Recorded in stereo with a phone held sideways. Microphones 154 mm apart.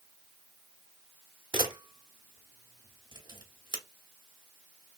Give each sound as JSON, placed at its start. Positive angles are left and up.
{"t": 1.5, "sound": "a camera shutter", "side_deg": -30, "distance_m": 1.0}